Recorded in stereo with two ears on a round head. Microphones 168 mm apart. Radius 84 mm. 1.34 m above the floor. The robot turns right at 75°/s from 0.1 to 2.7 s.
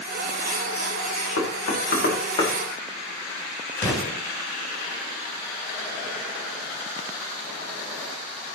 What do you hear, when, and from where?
1.4 s knocking: 80° left, 4.5 m; by 2.5 s 15° left (ahead or behind), 4.5 m
3.8 s an explosion: 15° left (ahead or behind), 9 m